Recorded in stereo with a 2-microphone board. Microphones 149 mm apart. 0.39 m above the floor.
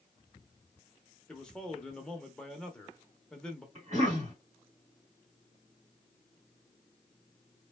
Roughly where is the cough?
Right.